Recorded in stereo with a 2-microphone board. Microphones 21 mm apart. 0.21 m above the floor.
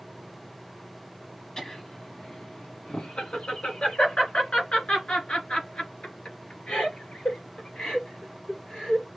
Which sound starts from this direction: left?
Laughter, at 1.6 s.